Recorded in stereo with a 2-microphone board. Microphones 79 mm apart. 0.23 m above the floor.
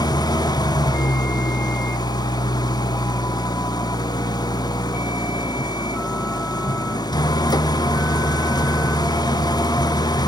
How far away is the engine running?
About 0.9 m.